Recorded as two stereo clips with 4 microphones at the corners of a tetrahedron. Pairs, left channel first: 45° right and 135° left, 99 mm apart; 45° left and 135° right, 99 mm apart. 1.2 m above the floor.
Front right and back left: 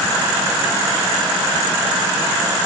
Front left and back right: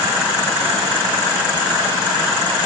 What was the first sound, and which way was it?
Only background noise.